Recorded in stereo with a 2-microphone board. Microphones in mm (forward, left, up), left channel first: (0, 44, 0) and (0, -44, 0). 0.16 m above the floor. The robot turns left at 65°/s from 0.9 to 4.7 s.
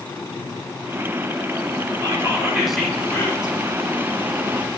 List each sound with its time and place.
2.0 s whispering: 130° right, 2.5 m; by 3.6 s 130° left, 2.5 m